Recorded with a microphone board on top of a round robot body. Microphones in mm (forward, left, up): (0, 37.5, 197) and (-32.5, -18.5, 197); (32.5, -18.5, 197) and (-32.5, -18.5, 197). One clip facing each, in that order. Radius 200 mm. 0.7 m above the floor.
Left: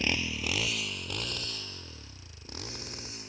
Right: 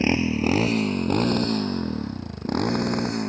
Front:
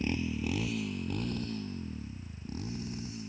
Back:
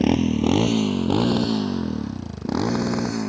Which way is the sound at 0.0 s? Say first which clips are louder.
Right 11 dB, back 14 dB; 175° left.